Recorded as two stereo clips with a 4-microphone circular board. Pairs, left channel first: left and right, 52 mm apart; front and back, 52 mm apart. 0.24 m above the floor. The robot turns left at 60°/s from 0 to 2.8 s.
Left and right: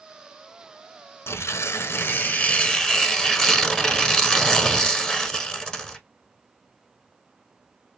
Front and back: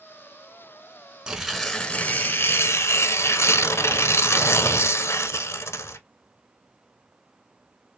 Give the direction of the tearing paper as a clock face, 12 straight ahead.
8 o'clock.